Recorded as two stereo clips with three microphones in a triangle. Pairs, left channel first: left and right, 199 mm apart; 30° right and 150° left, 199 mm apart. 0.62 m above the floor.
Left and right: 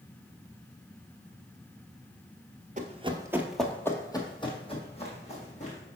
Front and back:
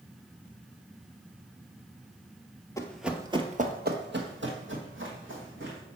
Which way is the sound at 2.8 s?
95° right.